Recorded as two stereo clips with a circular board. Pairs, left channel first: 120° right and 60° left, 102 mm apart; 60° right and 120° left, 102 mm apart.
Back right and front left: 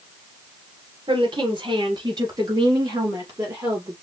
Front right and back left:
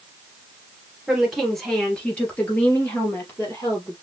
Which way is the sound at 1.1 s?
35° left.